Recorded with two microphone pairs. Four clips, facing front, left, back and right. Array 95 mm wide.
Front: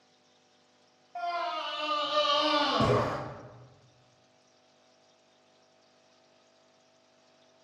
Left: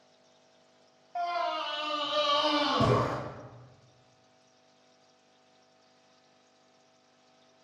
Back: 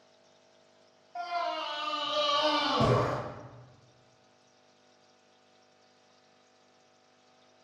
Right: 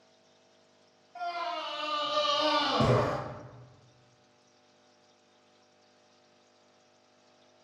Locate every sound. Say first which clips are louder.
1.1 s a scream: left 4 dB, even; 85° left, 1.1 m; by 3.1 s 60° right, 1.0 m